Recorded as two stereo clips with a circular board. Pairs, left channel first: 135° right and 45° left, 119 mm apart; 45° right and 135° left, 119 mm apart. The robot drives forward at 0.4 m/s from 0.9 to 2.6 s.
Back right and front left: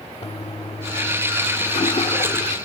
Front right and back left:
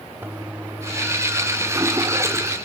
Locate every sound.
0.2 s a toilet flushing: 155° right; by 2.6 s 165° right